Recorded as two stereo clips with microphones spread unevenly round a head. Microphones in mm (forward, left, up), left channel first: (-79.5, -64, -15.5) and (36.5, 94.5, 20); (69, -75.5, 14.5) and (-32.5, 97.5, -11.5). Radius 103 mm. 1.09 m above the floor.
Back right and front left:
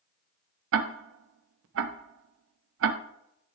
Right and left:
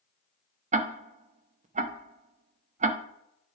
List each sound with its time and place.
0.7 s ticking: 60° left, 0.7 m